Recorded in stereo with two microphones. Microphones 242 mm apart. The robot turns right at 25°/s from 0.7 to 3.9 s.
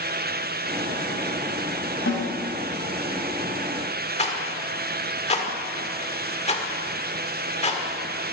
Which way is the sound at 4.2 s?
30° left (ahead or behind).